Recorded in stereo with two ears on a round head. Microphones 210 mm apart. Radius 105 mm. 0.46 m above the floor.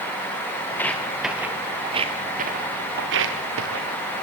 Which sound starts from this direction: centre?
Footsteps, at 0.7 s.